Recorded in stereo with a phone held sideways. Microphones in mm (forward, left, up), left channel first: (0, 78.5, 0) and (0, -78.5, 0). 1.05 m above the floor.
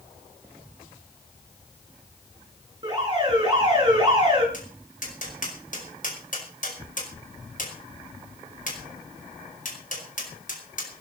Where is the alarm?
30° right (ahead or behind), 10 m.